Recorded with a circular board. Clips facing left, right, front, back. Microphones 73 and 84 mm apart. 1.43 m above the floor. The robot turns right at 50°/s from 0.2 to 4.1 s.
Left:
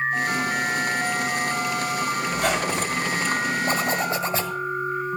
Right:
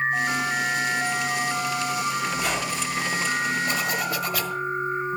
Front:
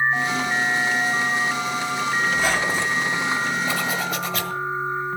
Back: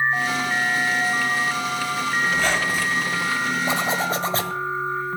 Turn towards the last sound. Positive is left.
turn(degrees=140)